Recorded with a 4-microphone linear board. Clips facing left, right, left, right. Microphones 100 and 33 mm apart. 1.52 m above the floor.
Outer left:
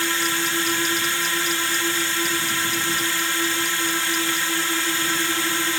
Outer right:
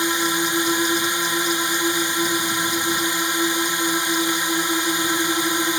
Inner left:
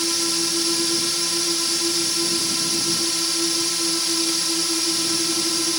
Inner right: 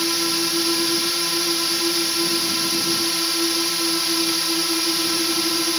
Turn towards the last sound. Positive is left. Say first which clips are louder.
# outer right 3 dB, inner right 2 dB
turn(degrees=-20)  # may be behind; listen again after turning